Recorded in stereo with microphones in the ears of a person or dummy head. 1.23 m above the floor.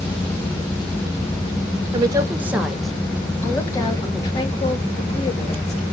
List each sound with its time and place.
1.9 s a woman speaking: 25° right (ahead or behind), 1.1 m; by 5.8 s 40° left (ahead or behind), 2.5 m